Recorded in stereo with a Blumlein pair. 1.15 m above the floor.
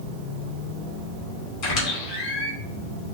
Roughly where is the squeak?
Ahead left.